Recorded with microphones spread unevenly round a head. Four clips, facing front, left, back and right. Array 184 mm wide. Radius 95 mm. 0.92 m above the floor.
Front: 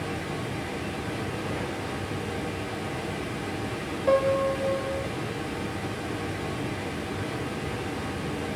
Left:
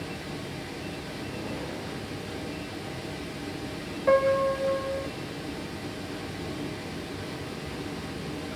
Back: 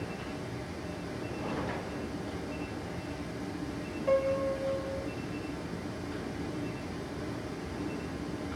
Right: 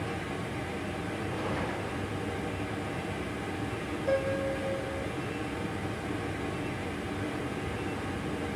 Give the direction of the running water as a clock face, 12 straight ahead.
12 o'clock.